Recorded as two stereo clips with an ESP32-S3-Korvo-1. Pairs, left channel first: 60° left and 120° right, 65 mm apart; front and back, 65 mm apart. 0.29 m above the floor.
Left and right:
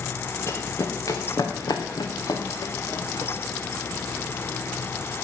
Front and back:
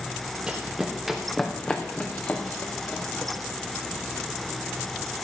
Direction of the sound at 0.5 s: 105° left.